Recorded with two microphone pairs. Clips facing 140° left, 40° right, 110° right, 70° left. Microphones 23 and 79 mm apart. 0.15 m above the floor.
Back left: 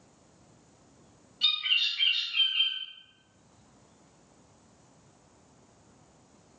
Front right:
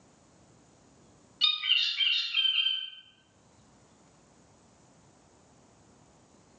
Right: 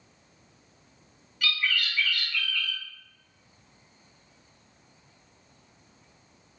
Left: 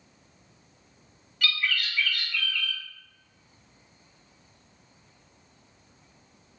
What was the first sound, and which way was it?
A bird, 25° right.